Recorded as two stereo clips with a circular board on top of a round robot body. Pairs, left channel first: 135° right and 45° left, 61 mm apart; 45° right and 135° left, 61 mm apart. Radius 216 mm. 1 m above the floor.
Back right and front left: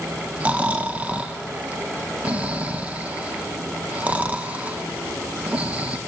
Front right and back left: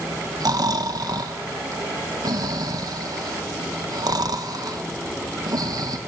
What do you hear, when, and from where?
0.4 s snoring: 115° left, 1.0 m